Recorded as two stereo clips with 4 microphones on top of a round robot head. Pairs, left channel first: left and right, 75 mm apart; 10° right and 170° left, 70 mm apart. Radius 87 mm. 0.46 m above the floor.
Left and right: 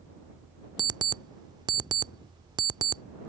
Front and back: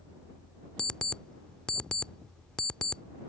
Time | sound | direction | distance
0.8 | an alarm clock | 85° right | ?